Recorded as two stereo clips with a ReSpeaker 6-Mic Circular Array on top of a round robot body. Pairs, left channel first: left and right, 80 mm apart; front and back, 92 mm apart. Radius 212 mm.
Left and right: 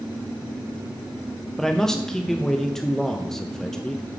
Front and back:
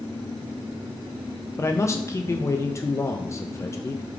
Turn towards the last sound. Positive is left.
turn(degrees=10)